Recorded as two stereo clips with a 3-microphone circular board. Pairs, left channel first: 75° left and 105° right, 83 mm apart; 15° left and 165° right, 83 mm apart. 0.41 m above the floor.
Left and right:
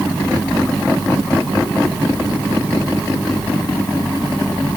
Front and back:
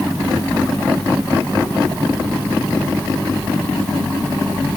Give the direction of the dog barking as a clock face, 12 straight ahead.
No dog barking in this recording.